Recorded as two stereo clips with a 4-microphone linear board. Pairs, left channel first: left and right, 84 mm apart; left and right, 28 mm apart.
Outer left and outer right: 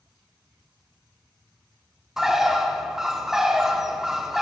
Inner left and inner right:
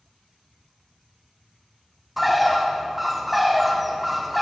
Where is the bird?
5° right (ahead or behind), 0.5 m.